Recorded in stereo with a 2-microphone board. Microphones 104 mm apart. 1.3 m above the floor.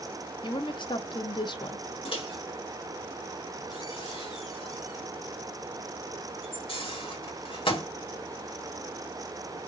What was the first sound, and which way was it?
A woman speaking, 50° left (ahead or behind).